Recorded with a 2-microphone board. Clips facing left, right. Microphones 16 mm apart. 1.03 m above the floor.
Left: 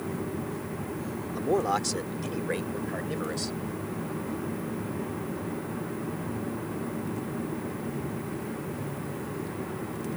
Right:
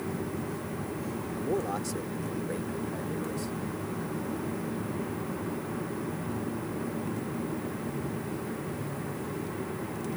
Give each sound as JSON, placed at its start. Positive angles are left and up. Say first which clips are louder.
{"t": 1.3, "sound": "a man speaking", "louder": "left 6 dB", "side_deg": 50}